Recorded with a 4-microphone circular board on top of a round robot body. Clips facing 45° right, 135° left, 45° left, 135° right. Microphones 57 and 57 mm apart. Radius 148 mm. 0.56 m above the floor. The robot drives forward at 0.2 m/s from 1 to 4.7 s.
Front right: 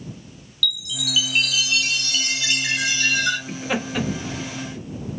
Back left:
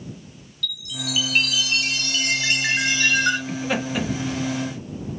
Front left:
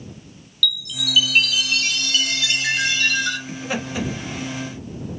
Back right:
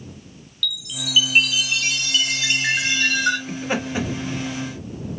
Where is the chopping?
I don't hear chopping.